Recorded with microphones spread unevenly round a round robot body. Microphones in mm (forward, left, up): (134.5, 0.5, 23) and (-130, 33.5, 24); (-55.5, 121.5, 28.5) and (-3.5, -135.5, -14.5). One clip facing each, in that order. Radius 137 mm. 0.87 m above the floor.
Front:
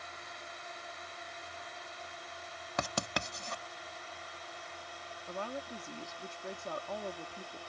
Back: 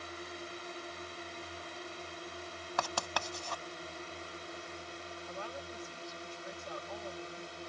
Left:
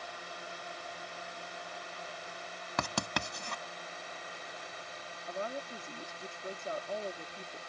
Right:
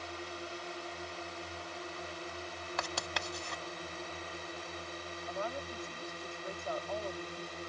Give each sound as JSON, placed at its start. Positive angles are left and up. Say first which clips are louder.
{"t": 0.0, "sound": "a drone", "louder": "back 7 dB, right 4 dB", "azimuth_deg": -130}
{"t": 2.8, "sound": "writing", "louder": "front 2 dB, left 6 dB", "azimuth_deg": 60}
{"t": 5.3, "sound": "a woman speaking", "louder": "front 6 dB, left 1 dB", "azimuth_deg": 30}